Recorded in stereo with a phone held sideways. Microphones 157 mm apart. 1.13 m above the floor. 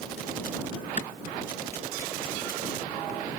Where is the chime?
No chime in this recording.